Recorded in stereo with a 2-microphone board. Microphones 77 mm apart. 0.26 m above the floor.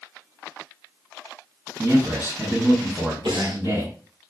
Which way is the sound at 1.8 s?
35° right (ahead or behind).